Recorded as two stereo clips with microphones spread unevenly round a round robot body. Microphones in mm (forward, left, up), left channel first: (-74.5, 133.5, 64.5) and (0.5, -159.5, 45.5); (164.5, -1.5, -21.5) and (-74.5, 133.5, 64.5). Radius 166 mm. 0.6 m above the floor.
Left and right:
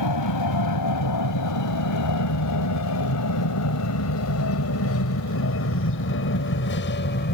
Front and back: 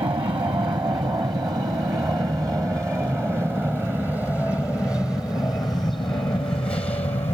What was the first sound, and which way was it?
An aircraft, 70° left.